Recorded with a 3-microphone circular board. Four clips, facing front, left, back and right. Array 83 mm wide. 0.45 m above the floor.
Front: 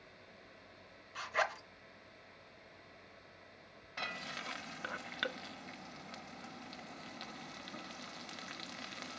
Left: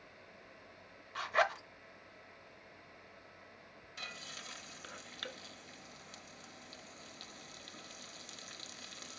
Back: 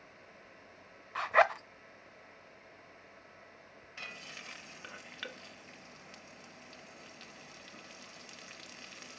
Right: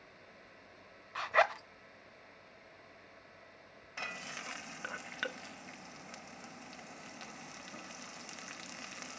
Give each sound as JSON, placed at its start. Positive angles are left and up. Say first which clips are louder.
{"t": 1.1, "sound": "a zipper", "louder": "right 3 dB, back 9 dB", "azimuth_deg": -165, "distance_m": 0.7}
{"t": 4.0, "sound": "frying", "louder": "right 6 dB, front 6 dB", "azimuth_deg": -35, "distance_m": 0.5}